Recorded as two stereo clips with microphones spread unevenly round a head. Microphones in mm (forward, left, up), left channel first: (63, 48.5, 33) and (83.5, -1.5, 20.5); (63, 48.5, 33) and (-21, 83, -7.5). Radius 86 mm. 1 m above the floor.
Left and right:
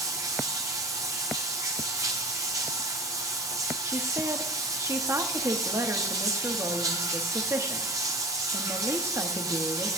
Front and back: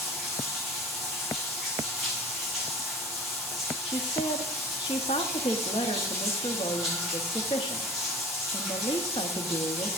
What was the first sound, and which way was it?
Running water, 110° right.